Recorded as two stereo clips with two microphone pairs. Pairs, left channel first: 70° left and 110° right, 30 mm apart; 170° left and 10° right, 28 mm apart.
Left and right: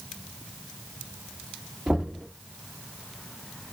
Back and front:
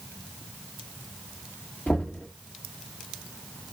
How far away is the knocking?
About 1.7 m.